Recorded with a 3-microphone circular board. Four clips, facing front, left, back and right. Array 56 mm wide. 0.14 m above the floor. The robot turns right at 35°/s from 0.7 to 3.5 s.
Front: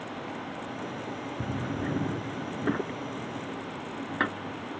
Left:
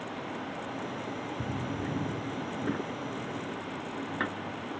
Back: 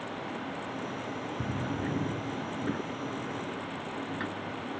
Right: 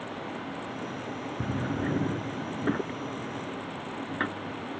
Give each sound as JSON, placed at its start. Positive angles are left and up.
{"t": 1.4, "sound": "a drawer", "azimuth_deg": -90}